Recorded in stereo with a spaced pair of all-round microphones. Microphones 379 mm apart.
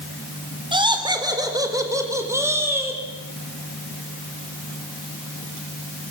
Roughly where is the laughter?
Centre.